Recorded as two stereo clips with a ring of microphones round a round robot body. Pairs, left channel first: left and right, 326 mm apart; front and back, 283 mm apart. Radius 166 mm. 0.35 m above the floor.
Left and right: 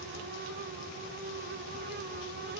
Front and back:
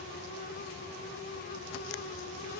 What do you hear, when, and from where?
Only background noise.